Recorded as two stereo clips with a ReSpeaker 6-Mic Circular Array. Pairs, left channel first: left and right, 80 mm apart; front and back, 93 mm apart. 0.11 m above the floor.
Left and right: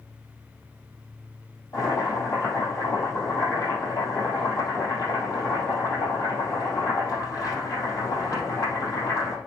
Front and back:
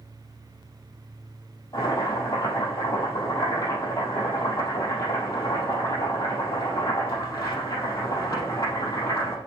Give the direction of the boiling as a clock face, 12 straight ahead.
10 o'clock.